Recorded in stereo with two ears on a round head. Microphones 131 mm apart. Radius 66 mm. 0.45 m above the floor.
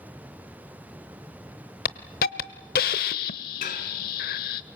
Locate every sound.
1.9 s a hiss: 65° left (ahead or behind), 0.8 m
3.6 s dishes clattering: 60° left (ahead or behind), 3 m